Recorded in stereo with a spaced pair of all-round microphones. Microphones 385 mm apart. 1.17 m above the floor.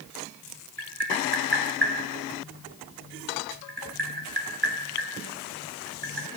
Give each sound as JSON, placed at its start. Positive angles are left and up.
{"t": 0.8, "sound": "tapping", "side_deg": -85, "distance_m": 5.5}